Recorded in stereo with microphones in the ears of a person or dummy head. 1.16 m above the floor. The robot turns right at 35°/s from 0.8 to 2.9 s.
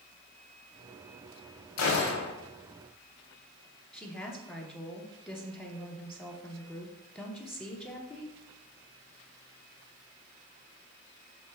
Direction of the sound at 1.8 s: 80° left.